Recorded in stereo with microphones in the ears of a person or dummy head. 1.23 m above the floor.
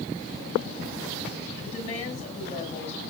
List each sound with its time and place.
1.6 s a woman speaking: 40° left (ahead or behind), 8 m